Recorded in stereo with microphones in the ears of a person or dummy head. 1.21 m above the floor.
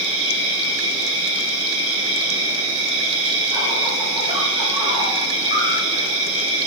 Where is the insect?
30° right (ahead or behind), 1.6 m.